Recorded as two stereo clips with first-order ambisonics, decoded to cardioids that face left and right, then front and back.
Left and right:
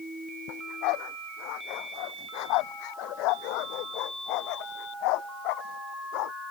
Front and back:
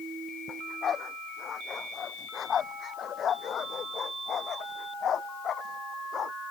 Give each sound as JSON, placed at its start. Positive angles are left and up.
{"t": 0.5, "sound": "a dog barking", "azimuth_deg": 65}